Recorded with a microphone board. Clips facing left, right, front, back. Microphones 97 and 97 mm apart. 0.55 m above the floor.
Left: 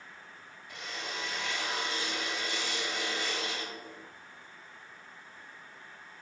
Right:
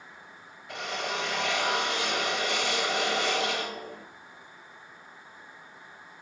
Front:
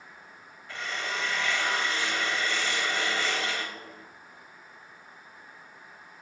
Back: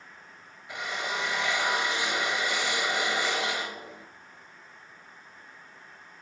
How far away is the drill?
About 1.5 m.